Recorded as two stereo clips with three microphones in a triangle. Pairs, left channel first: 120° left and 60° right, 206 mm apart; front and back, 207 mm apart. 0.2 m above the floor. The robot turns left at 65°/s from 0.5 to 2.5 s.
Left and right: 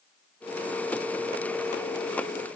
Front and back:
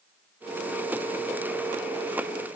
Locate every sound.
Only background noise.